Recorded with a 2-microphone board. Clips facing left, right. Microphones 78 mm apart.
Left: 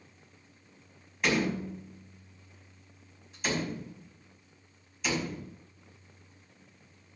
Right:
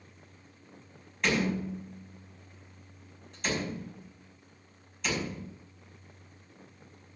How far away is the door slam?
About 5 m.